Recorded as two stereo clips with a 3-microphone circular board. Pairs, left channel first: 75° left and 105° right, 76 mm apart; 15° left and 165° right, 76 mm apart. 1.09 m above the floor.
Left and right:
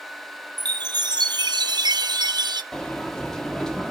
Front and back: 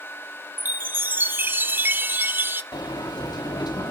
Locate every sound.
0.6 s a chime: 105° right, 0.6 m
2.7 s a sliding door: 10° right, 1.5 m